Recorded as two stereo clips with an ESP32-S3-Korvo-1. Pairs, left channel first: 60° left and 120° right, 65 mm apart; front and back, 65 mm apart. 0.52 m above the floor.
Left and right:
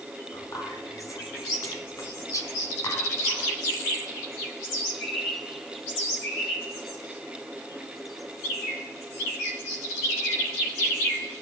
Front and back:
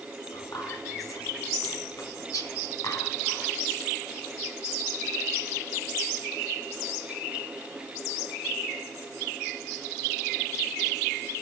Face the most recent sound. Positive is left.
turn(degrees=30)